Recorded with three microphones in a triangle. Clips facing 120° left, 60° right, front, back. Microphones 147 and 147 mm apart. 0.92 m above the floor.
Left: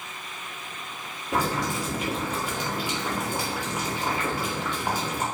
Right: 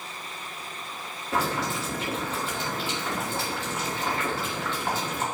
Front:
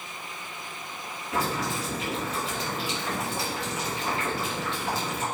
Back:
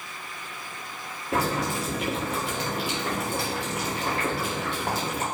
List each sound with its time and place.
1.3 s boiling: 165° right, 3 m